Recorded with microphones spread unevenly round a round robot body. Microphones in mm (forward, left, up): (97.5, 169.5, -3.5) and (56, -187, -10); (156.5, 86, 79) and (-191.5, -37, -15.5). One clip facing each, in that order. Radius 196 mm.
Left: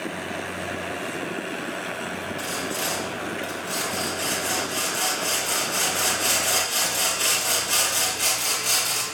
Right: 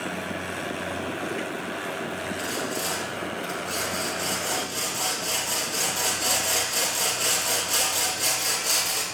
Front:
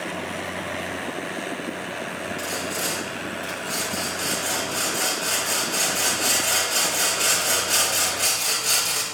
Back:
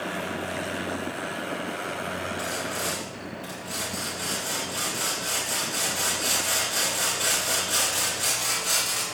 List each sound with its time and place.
2.4 s sawing: 50° left, 5.5 m